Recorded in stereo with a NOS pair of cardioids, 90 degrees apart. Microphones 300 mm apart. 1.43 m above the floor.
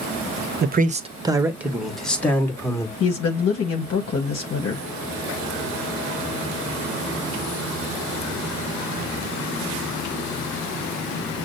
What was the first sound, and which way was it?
A man speaking, 35° right.